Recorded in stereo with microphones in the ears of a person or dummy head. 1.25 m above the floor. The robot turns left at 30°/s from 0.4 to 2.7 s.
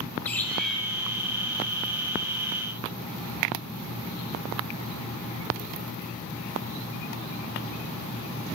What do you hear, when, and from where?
0.2 s a bird: 10° left (ahead or behind), 2.5 m; by 0.8 s centre (ahead or behind), 2.5 m